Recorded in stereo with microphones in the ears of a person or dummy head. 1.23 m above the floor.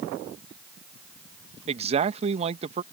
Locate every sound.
1.7 s a man speaking: 35° right (ahead or behind)